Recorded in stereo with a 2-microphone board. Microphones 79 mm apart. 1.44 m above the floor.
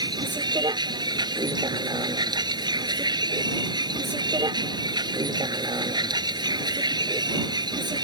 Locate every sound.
0.0 s a vehicle: 75° right (ahead or behind)